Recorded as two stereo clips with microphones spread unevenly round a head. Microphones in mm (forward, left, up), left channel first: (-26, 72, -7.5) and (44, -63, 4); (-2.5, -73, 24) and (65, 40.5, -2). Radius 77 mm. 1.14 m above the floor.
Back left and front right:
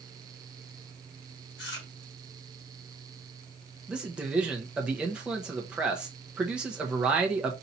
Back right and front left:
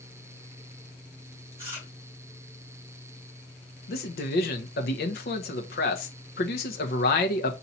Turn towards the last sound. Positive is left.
turn(degrees=-150)